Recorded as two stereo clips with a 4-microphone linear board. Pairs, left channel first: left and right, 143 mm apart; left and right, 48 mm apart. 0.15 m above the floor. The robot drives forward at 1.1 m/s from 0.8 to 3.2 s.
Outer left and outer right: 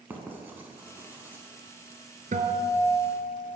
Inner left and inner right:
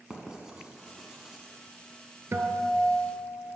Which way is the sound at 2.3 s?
60° right (ahead or behind).